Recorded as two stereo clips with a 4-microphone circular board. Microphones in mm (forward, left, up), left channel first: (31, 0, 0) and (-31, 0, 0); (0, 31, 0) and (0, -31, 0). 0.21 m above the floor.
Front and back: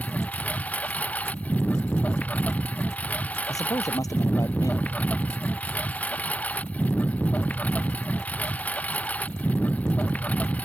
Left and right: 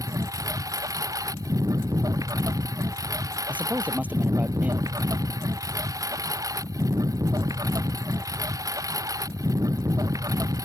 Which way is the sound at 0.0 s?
65° right.